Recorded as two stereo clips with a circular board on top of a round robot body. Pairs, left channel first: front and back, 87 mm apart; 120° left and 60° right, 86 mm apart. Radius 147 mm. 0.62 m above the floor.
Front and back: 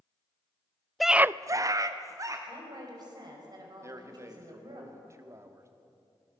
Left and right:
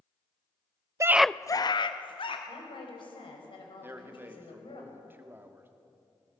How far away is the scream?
About 0.6 m.